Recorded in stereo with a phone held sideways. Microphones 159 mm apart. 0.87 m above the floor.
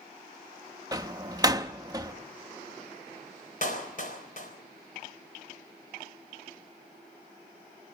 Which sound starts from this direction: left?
A clap, at 3.6 s.